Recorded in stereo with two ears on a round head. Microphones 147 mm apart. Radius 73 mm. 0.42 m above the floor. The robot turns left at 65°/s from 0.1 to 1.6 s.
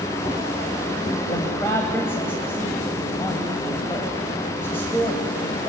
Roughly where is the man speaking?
Left.